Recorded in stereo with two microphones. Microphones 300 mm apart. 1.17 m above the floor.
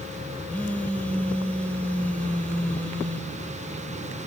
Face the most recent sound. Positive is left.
turn(degrees=5)  # may be behind; listen again after turning